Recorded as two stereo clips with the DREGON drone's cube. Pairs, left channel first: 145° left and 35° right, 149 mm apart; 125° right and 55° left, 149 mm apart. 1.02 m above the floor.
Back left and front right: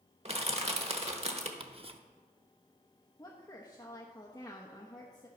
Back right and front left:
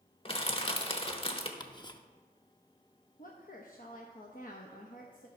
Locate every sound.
0.2 s crushing: 75° right, 1.1 m
1.6 s ticking: 70° right, 0.7 m
3.2 s a woman speaking: 150° right, 0.9 m